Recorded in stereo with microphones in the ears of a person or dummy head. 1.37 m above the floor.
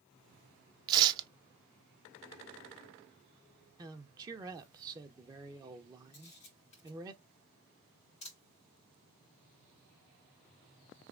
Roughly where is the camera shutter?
Left.